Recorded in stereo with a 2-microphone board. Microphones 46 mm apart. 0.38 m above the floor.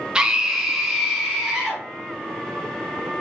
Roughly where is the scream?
Right.